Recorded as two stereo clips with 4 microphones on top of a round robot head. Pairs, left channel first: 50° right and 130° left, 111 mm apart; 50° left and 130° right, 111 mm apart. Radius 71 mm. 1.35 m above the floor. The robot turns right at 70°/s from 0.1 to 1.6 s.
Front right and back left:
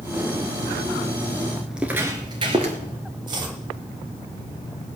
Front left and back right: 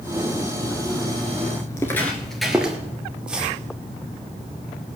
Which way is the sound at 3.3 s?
150° left.